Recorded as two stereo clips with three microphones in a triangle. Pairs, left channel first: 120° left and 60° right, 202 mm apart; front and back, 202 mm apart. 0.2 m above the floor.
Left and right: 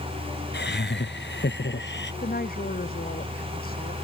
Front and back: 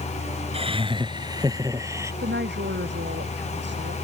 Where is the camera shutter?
No camera shutter in this recording.